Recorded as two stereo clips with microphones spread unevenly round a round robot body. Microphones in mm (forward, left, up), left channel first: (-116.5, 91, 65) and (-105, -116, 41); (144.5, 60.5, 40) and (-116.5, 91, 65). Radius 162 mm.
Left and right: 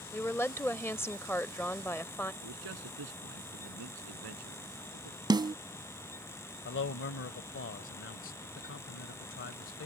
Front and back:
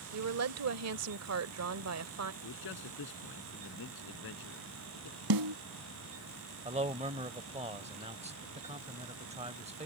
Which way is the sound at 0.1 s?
175° left.